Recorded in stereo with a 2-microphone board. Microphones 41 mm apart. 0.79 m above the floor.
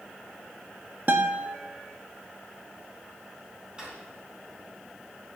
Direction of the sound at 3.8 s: 20° right (ahead or behind).